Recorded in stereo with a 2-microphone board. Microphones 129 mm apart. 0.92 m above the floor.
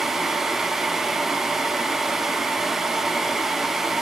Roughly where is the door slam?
I don't hear a door slam.